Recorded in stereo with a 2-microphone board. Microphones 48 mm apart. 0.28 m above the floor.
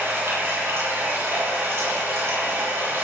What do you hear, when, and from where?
0.0 s running water: 60° right (ahead or behind), 8 m